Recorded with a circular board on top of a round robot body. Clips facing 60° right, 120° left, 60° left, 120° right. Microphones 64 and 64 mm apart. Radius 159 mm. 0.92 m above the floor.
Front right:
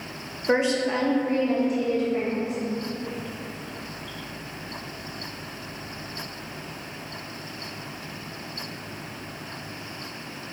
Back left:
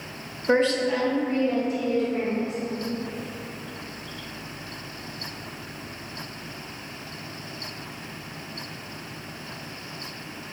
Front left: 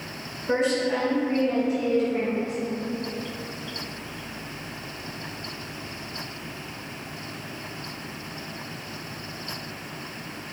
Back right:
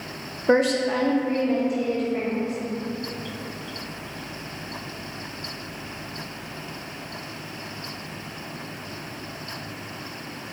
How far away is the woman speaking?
About 0.5 m.